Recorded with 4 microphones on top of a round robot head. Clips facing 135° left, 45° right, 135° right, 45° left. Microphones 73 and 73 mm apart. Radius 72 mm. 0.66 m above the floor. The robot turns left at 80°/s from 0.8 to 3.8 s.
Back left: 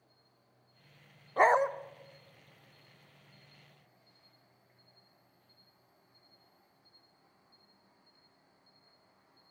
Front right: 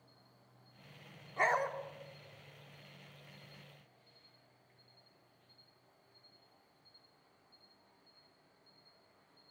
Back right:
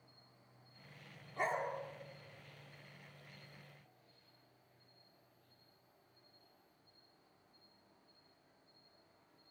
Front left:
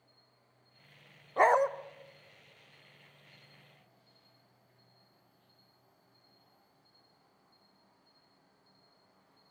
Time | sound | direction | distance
0.0 | an insect | 60° right | 6.5 m
1.4 | a dog barking | 85° left | 0.5 m